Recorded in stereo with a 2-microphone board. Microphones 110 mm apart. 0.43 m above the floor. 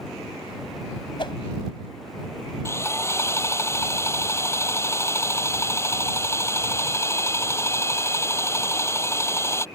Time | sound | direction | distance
1.2 | a whoosh | 50° left (ahead or behind) | ?
2.6 | sawing | 25° left (ahead or behind) | ?